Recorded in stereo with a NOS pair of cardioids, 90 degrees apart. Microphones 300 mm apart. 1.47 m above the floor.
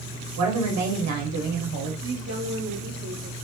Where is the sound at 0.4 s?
65° right, 1.4 m.